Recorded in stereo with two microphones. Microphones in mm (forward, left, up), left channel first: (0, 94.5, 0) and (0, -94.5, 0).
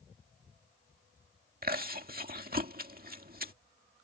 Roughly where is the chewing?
Right.